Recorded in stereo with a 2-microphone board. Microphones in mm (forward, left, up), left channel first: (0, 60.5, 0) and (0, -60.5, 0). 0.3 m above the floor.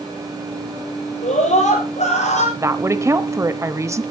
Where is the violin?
I don't hear a violin.